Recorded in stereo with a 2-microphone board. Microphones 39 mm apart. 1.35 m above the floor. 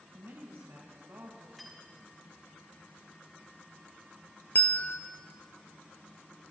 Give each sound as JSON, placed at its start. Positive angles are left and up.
{"t": 0.1, "sound": "a woman speaking", "side_deg": -80, "distance_m": 1.7}
{"t": 1.6, "sound": "cutlery clinking", "side_deg": -5, "distance_m": 2.0}
{"t": 4.5, "sound": "a bell", "side_deg": 40, "distance_m": 0.7}